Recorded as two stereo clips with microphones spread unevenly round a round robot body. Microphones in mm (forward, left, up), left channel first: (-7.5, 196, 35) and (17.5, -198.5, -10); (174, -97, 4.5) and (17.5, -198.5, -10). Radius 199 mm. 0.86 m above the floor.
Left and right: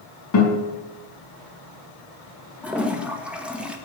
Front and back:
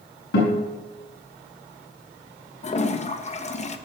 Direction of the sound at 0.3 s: 45° left.